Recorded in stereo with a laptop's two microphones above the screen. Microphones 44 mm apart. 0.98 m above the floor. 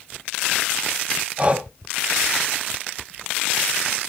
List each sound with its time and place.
1.4 s breathing: 25° right (ahead or behind), 0.8 m